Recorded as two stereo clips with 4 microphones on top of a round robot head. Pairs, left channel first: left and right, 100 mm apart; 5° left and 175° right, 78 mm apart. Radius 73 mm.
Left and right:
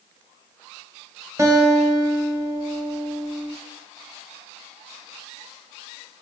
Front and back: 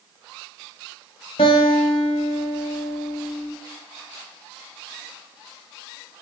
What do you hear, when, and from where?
1.4 s a guitar: 30° right, 0.6 m